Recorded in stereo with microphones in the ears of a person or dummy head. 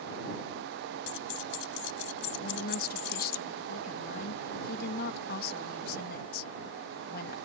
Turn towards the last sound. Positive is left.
turn(degrees=60)  # may be behind; listen again after turning